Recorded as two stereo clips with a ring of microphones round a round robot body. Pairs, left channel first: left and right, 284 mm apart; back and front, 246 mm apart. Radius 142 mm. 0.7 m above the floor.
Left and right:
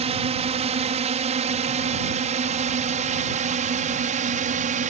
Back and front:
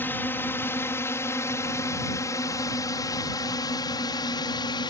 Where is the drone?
110° right; by 4.9 s 125° right.